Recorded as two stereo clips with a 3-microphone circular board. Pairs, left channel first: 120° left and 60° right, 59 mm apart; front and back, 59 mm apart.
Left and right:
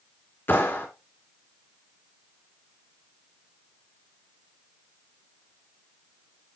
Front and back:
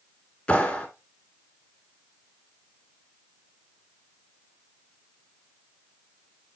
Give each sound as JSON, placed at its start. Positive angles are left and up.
{"t": 0.5, "sound": "a clap", "azimuth_deg": 60, "distance_m": 2.5}